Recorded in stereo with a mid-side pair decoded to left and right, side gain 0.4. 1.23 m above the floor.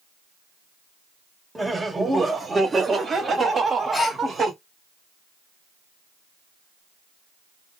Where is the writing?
No writing in this recording.